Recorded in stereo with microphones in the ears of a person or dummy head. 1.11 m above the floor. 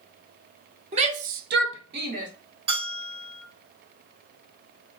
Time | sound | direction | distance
0.9 | a shout | 35° right (ahead or behind) | 0.9 m
2.7 | a bell | 35° right (ahead or behind) | 1.9 m